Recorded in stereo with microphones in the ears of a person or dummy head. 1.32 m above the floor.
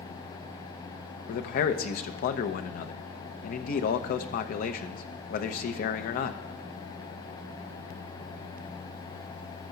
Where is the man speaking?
55° left (ahead or behind), 0.8 m.